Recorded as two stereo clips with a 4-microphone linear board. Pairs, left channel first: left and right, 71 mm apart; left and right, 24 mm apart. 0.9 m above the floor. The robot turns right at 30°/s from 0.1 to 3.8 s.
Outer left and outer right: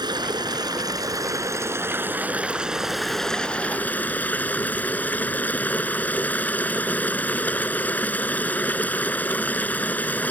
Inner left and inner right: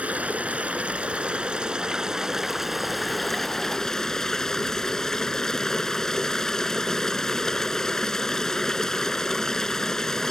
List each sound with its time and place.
0.0 s running water: 90° right; by 10.3 s 20° left